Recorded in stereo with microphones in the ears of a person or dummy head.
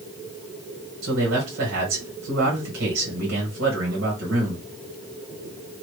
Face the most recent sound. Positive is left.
turn(degrees=-65)  # may be behind; listen again after turning